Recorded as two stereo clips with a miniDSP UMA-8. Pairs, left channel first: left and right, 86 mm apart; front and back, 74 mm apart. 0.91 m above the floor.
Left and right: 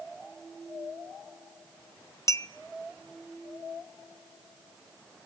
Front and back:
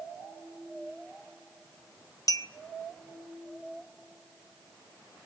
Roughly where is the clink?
Ahead left.